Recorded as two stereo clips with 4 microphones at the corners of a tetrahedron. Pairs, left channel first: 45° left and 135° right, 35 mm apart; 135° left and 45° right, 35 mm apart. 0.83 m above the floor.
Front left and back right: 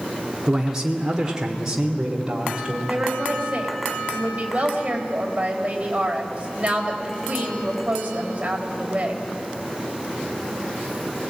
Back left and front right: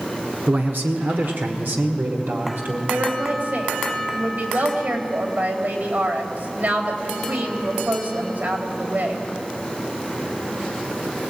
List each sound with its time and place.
0.5 s a man speaking: 60° right, 1.7 m
2.9 s a woman speaking: 75° right, 4 m